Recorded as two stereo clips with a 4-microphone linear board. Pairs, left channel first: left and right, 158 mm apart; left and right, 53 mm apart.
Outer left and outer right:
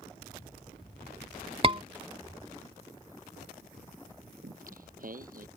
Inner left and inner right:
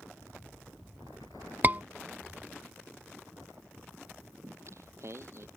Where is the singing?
60° right (ahead or behind).